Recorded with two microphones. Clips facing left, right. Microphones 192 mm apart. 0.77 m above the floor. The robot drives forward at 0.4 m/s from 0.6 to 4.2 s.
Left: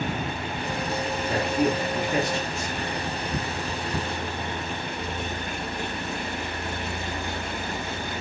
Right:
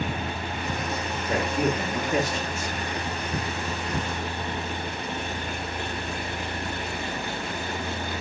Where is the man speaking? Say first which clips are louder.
Left 1 dB; 5° right (ahead or behind), 2 m.